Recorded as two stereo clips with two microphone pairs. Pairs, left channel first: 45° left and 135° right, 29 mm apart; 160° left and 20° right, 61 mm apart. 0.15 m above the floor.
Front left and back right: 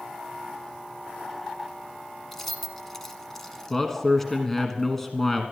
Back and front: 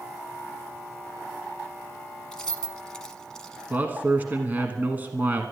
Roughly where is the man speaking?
Ahead.